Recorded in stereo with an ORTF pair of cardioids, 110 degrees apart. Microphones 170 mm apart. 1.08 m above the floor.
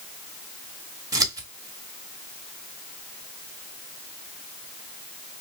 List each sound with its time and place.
1.1 s scissors: 20° right, 1.3 m